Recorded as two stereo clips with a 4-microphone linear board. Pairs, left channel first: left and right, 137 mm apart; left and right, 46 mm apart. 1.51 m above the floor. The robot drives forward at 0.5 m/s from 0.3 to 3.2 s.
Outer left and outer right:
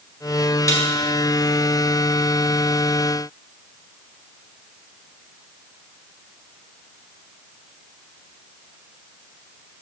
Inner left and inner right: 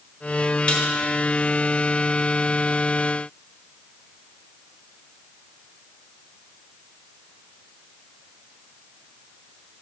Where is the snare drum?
25° left (ahead or behind), 1.3 m.